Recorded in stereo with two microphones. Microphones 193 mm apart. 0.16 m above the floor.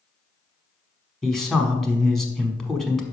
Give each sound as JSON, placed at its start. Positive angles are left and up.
{"t": 1.2, "sound": "a man speaking", "side_deg": 0, "distance_m": 1.1}